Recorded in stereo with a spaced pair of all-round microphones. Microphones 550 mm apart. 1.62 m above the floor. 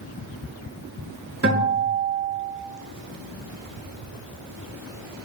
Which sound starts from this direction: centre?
A guitar, at 1.4 s.